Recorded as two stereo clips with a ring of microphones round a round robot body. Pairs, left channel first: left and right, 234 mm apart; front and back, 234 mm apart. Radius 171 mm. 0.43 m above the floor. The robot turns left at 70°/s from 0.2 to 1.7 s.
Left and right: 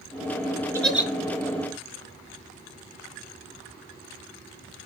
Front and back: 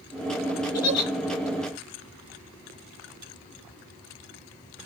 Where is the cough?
I don't hear a cough.